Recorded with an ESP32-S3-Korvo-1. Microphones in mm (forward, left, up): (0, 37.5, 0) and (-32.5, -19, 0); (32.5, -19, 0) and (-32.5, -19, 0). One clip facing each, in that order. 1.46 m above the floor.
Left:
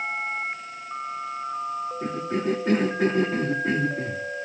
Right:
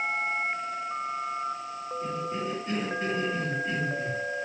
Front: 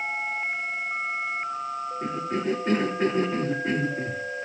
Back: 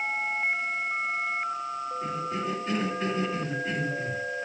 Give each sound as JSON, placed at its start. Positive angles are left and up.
{"t": 2.0, "sound": "a cough", "azimuth_deg": 45, "distance_m": 2.5}